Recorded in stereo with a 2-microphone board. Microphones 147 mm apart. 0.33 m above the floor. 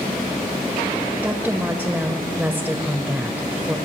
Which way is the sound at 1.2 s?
15° right (ahead or behind).